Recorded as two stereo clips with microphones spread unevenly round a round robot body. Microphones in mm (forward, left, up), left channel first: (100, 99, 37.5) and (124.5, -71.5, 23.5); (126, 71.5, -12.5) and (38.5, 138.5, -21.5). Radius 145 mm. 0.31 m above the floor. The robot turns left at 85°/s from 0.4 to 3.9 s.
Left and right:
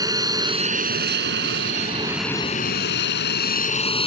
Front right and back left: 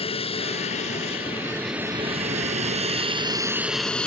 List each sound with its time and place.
0.0 s an aircraft: 15° right; by 4.1 s 45° left